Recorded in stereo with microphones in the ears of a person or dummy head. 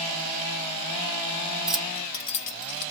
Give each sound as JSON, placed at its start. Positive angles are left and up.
{"t": 1.7, "sound": "keys jangling", "side_deg": 0, "distance_m": 0.8}